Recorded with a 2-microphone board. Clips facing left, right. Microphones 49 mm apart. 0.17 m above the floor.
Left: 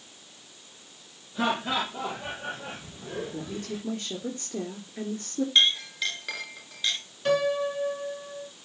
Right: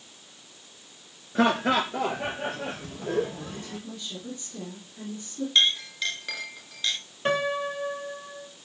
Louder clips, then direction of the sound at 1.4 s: Right 5 dB; 55° right (ahead or behind).